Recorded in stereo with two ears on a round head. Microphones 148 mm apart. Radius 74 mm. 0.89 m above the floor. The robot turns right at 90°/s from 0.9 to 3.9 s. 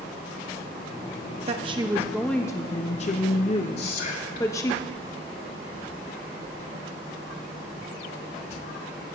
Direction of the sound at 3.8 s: 70° left (ahead or behind).